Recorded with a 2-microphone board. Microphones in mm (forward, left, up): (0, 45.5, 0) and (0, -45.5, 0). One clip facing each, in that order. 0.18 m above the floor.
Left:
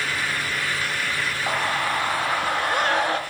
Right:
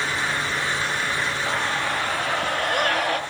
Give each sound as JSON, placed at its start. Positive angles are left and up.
{"t": 1.5, "sound": "a scream", "side_deg": 15, "distance_m": 1.6}